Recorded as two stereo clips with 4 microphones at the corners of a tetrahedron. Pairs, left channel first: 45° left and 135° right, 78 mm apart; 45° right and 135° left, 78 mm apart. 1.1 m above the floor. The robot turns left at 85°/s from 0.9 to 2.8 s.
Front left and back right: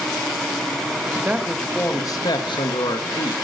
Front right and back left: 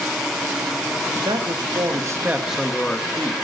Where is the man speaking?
170° left, 1.5 m; by 3.4 s 25° left, 1.5 m.